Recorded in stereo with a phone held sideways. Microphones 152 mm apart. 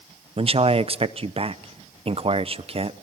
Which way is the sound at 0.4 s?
40° right (ahead or behind).